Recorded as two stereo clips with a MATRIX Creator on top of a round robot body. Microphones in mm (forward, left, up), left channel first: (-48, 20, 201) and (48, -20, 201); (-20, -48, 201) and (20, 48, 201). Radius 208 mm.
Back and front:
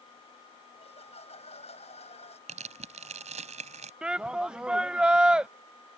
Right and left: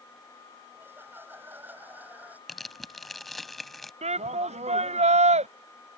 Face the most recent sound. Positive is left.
turn(degrees=60)